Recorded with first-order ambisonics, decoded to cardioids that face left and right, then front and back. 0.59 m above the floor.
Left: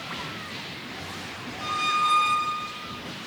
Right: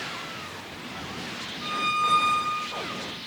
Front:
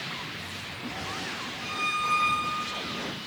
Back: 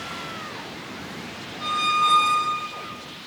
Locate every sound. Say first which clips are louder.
1.6 s a squeak: left 1 dB, back 8 dB; 170° left, 1.6 m